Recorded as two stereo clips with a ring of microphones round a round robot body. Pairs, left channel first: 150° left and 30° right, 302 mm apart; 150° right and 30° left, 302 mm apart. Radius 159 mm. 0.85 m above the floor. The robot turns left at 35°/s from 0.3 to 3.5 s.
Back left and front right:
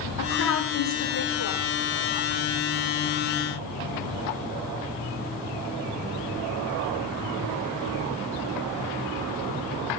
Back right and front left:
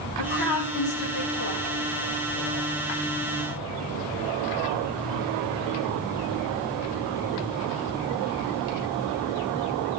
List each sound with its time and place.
0.2 s a woman speaking: 165° right, 8 m; by 1.6 s 150° left, 8 m